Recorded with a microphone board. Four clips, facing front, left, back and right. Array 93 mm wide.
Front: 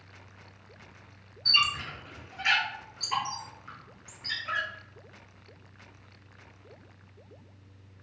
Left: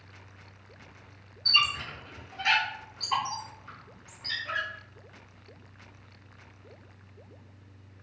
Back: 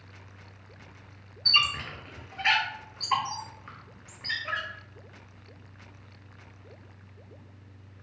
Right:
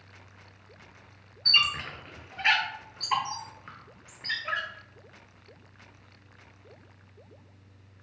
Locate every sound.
1.4 s a squeak: 130° right, 0.6 m